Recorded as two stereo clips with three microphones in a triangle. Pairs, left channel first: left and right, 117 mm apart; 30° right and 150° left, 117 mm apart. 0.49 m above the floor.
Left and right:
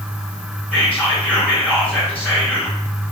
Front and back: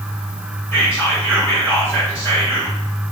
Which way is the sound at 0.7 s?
25° left.